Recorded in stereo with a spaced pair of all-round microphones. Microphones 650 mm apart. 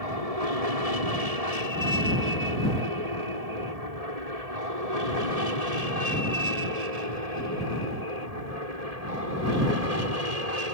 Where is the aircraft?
65° right (ahead or behind); by 10.7 s 70° right (ahead or behind).